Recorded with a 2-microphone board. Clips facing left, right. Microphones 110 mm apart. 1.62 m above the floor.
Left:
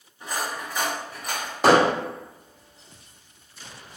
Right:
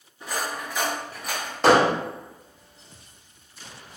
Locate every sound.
0.2 s cutlery clinking: centre (ahead or behind), 1.6 m
1.6 s hammering: 10° left (ahead or behind), 1.1 m